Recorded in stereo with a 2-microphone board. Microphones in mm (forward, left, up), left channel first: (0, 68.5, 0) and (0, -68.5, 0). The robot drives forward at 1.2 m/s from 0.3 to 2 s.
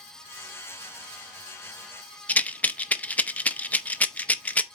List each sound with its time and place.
2.3 s a rattle: 10° left (ahead or behind), 0.5 m